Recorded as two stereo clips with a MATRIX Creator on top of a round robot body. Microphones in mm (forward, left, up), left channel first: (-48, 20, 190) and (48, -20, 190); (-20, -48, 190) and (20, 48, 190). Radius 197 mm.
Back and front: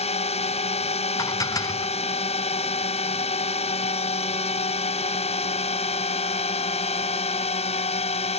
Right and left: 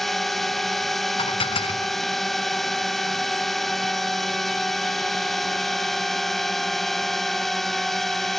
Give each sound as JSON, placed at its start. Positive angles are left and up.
{"t": 0.0, "sound": "a drone", "azimuth_deg": 160}
{"t": 1.2, "sound": "dishes clattering", "azimuth_deg": -145}